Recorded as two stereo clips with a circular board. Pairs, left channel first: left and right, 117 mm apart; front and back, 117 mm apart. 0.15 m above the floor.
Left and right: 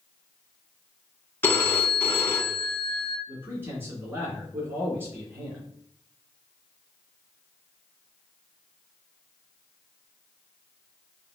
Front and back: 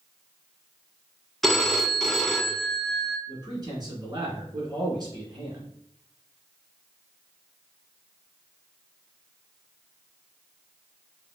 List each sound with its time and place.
1.4 s a phone ringing: 85° left, 0.6 m
3.3 s a man speaking: 155° right, 2.0 m